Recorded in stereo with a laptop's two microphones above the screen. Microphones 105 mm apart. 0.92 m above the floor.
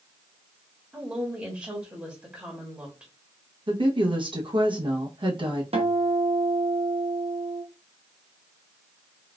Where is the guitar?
70° right (ahead or behind), 0.8 m.